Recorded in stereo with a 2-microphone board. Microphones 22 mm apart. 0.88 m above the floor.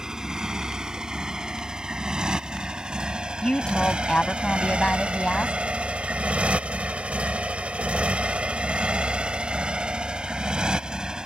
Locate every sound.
0.0 s a motorcycle: 35° right (ahead or behind)
3.4 s a woman speaking: 45° left (ahead or behind)